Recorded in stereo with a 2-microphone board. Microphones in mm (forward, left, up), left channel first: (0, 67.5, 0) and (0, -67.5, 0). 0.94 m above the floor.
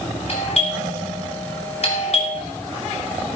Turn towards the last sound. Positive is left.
turn(degrees=55)  # may be behind; listen again after turning